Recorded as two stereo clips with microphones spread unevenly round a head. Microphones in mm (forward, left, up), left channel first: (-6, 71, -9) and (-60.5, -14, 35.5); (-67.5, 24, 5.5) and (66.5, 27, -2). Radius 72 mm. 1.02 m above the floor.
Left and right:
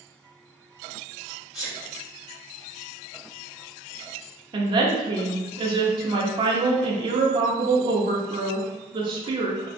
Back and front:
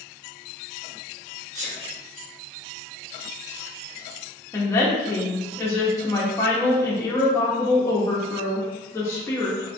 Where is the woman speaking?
140° right, 0.6 m.